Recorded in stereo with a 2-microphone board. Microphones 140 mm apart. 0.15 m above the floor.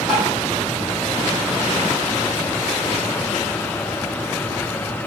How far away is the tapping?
About 1.4 m.